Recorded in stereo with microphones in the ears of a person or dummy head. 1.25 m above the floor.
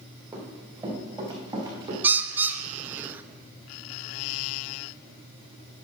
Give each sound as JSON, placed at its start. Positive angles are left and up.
{"t": 0.3, "sound": "running footsteps", "side_deg": -20, "distance_m": 4.0}
{"t": 2.0, "sound": "a bird", "side_deg": -10, "distance_m": 0.5}